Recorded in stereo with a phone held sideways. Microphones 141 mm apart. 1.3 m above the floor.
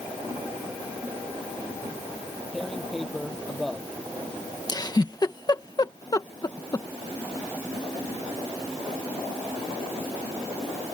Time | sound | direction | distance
2.5 | tearing paper | centre (ahead or behind) | ?
4.7 | a giggle | 30° left (ahead or behind) | ?